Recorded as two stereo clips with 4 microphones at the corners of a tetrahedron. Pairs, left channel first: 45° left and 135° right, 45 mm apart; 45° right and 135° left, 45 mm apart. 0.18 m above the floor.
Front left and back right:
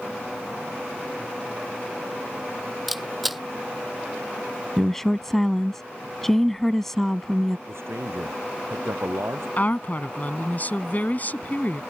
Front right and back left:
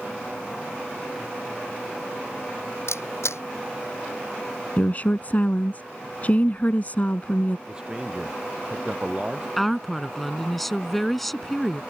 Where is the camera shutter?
45° right.